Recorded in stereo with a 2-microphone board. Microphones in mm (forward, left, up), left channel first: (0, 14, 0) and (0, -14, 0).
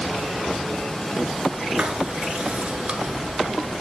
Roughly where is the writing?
Right.